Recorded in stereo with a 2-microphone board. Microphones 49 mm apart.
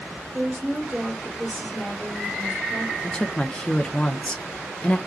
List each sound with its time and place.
0.3 s a woman speaking: 20° right (ahead or behind), 2 m
3.0 s a woman speaking: 20° left (ahead or behind), 0.7 m